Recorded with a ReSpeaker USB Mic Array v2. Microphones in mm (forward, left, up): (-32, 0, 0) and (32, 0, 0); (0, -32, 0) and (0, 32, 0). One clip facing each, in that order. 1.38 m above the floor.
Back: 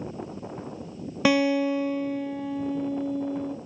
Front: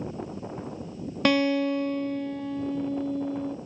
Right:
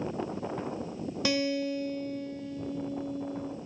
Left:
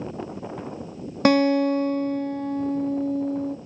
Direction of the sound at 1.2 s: 100° left.